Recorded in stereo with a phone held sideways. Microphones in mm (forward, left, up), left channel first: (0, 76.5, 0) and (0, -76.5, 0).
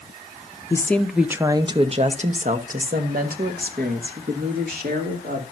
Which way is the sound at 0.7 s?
20° left (ahead or behind).